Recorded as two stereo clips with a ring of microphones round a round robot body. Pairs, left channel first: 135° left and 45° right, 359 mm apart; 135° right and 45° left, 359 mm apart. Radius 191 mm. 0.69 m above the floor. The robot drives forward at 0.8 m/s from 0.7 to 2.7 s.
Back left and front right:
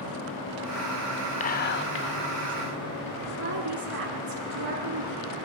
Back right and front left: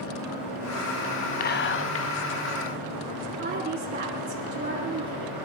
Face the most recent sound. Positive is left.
turn(degrees=-15)